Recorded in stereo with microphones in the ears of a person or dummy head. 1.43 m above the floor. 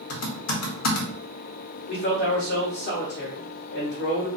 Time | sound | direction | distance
0.1 | typing on a keyboard | 80° left | 0.8 m
1.9 | a man speaking | 60° left (ahead or behind) | 1.1 m